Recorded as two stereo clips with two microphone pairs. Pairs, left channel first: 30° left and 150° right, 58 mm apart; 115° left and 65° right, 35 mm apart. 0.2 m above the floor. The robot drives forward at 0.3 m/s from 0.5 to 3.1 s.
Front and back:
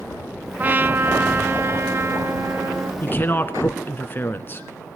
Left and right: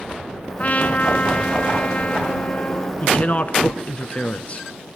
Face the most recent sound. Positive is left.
turn(degrees=80)